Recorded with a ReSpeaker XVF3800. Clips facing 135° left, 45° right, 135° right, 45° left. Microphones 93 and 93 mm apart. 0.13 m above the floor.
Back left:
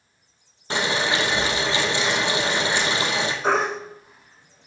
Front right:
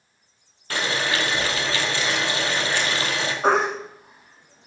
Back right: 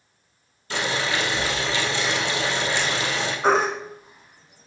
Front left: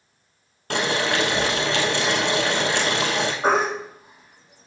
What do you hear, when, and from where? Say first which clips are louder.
0.7 s boiling: back left 2 dB, front left 3 dB; 70° left, 1.7 m
3.4 s a baby crying: front right 4 dB, back right 2 dB; 25° right, 4 m